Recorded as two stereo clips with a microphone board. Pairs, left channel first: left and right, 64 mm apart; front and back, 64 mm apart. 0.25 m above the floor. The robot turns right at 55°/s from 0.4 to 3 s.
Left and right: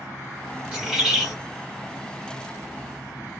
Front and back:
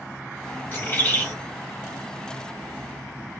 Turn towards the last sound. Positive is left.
turn(degrees=100)